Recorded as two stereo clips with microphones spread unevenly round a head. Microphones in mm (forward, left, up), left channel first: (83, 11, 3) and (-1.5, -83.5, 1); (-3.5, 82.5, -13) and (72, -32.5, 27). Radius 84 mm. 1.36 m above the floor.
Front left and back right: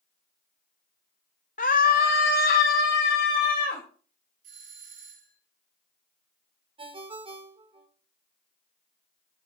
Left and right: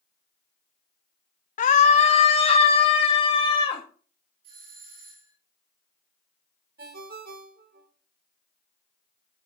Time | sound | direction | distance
1.6 | a scream | 95° left | 0.8 m
4.4 | a doorbell | 120° right | 7 m
6.8 | a ringtone | 85° right | 3 m